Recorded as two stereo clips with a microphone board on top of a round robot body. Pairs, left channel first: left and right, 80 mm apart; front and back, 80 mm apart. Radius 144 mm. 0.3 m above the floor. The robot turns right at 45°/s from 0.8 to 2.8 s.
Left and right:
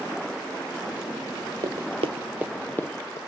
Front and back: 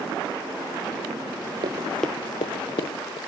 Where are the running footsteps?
140° right, 0.7 m; by 3.2 s 35° left, 1.2 m.